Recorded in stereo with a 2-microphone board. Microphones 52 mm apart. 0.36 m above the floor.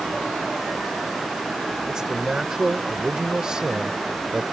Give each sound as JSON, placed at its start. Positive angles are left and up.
{"t": 1.9, "sound": "a man speaking", "side_deg": -15}